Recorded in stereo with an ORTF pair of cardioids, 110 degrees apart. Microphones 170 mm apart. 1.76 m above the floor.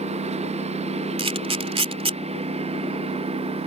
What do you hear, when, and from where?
0.0 s a lawn mower: 40° right; by 3.7 s 35° right
1.2 s a camera shutter: 35° right